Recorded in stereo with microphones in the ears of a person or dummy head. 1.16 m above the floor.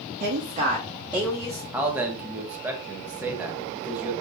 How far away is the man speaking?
About 0.8 m.